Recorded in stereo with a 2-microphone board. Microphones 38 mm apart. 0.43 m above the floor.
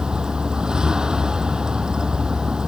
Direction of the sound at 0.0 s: 20° right (ahead or behind).